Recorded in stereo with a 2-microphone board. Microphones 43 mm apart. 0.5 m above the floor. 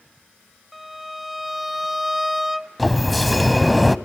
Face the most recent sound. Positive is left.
turn(degrees=0)  # may be behind; listen again after turning